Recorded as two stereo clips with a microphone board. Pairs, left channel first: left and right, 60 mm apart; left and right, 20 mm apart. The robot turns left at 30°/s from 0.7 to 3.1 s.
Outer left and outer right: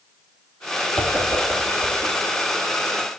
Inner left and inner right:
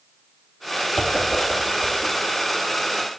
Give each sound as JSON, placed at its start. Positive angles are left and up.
{"t": 1.0, "sound": "a whoosh", "side_deg": -50, "distance_m": 0.9}